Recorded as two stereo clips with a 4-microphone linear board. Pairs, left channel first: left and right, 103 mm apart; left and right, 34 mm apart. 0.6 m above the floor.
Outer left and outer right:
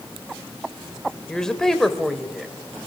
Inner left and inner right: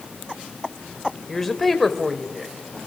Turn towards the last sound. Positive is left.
turn(degrees=0)  # may be behind; listen again after turning